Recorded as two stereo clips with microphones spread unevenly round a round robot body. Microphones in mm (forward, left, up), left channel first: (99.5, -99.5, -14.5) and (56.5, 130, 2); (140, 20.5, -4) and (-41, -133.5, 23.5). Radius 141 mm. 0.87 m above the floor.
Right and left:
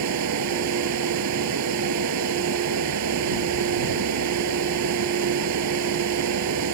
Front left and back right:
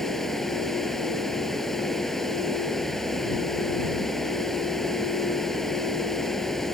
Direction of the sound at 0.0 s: 130° left.